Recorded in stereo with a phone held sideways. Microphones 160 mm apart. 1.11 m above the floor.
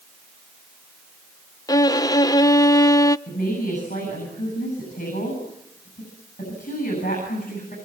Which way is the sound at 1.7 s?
20° left (ahead or behind).